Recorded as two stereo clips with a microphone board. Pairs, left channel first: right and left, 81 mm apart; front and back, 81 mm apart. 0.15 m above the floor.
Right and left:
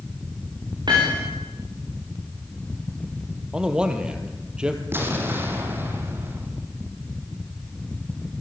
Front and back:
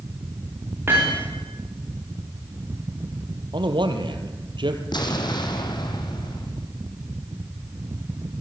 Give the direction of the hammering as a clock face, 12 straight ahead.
8 o'clock.